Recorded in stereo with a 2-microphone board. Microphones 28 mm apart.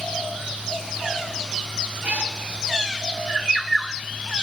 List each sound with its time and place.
2.0 s a cat meowing: 60° right (ahead or behind), 7 m